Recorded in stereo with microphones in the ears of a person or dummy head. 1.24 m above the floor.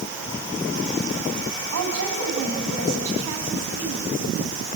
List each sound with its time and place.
1.7 s a woman speaking: 85° right, 8 m